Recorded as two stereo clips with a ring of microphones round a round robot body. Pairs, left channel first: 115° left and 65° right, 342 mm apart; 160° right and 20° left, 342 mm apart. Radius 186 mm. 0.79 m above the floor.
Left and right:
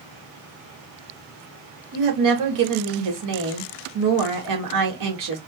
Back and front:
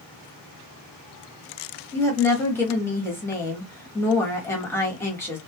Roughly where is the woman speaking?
Right.